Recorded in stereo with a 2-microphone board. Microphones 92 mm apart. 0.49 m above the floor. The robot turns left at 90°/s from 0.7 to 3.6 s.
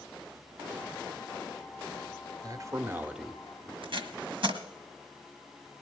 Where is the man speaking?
100° right, 1.0 m; by 3.7 s 155° left, 1.0 m.